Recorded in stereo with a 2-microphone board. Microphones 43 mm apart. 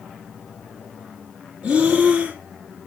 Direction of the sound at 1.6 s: 20° right (ahead or behind).